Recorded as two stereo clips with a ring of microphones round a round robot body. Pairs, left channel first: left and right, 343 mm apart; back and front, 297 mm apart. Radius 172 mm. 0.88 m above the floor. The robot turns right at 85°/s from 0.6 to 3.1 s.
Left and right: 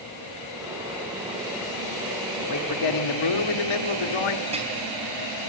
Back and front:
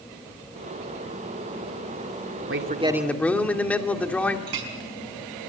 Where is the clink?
15° right, 5 m.